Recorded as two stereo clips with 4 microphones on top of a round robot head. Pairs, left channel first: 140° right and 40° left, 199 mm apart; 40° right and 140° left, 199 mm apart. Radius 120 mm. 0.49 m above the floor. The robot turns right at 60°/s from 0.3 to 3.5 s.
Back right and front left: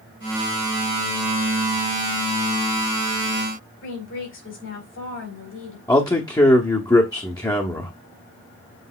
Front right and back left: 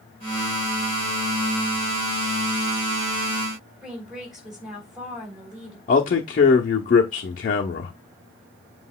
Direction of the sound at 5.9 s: 70° right.